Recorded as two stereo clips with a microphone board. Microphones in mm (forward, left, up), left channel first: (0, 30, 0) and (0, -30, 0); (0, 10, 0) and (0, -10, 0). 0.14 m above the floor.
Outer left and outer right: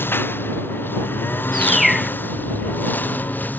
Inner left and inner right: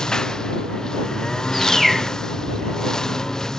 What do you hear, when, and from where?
0.0 s a lawn mower: 35° left (ahead or behind); by 3.6 s 30° left (ahead or behind)
1.5 s a bird: centre (ahead or behind)